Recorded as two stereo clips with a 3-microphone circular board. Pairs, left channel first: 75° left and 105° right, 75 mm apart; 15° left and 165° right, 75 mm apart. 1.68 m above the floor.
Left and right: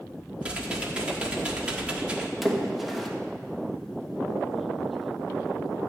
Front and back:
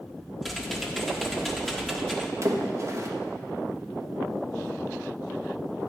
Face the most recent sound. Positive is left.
turn(degrees=165)